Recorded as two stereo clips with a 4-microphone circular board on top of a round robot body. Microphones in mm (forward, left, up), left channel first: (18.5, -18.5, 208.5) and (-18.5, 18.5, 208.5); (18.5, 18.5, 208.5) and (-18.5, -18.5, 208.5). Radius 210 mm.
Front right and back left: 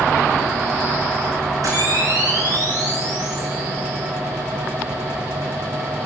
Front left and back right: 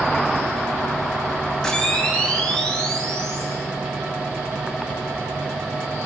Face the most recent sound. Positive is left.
turn(degrees=125)